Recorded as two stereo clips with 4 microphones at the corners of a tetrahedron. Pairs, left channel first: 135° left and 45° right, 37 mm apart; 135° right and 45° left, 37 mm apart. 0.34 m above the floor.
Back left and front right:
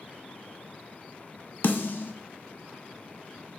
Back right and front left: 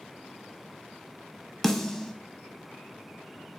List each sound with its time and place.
1.6 s a snare drum: 140° left, 0.5 m